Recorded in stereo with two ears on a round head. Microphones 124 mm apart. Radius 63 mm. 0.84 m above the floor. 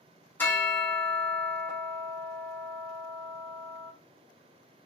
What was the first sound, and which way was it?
A bell, 15° left (ahead or behind).